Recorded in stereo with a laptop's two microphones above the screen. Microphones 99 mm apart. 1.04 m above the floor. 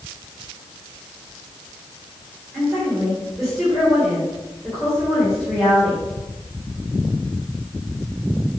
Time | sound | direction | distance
2.5 | a woman speaking | centre (ahead or behind) | 3 m